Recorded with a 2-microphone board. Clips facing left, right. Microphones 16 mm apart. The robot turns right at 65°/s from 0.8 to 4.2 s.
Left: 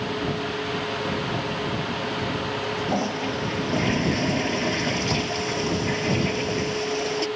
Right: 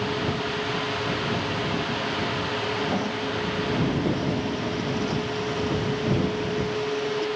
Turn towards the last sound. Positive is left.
turn(degrees=120)